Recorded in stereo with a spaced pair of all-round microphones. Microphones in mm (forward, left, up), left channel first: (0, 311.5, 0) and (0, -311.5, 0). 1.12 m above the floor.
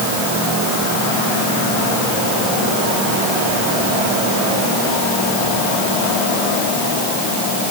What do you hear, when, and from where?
Only background noise.